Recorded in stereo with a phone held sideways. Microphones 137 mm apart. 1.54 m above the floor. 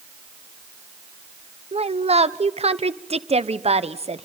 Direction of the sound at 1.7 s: 50° right (ahead or behind).